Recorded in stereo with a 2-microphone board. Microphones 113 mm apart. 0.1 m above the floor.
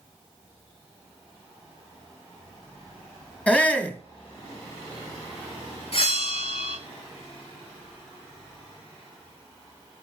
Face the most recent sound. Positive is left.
turn(degrees=55)  # may be behind; listen again after turning